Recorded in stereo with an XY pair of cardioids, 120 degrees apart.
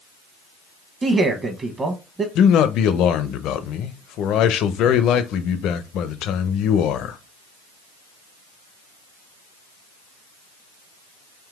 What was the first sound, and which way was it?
A man speaking, 30° right.